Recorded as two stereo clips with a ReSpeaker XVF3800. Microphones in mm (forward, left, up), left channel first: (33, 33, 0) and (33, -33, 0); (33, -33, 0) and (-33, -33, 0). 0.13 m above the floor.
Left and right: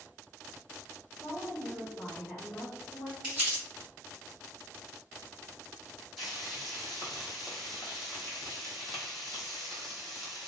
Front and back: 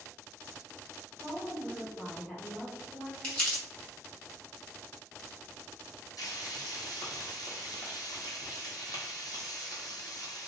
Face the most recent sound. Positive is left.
turn(degrees=0)